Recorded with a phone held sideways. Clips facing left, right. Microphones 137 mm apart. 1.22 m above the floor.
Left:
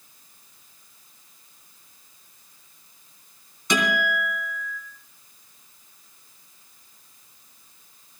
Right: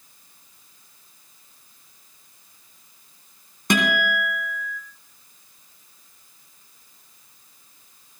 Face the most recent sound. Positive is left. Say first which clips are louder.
# right 2 dB
turn(degrees=-55)  # may be behind; listen again after turning